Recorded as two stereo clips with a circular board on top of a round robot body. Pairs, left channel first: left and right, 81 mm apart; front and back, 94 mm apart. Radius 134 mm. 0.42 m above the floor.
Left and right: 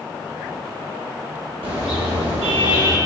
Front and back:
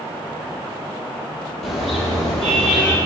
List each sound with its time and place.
1.6 s a car horn: 90° right, 9.5 m; by 3.0 s 80° right, 10 m